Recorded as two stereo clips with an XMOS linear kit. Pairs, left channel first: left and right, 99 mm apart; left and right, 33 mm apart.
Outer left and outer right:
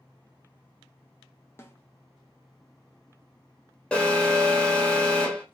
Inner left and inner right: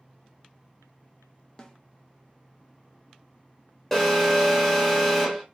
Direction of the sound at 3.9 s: 10° left (ahead or behind).